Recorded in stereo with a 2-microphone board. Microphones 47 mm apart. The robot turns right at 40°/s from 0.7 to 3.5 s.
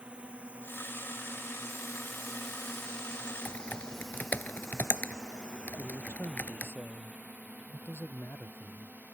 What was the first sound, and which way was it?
A drone, 25° right (ahead or behind).